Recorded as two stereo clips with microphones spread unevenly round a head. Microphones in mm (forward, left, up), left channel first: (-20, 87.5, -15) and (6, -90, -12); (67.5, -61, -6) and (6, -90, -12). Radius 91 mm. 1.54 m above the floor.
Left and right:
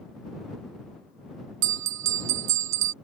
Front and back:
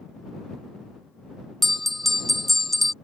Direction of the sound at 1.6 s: 65° right.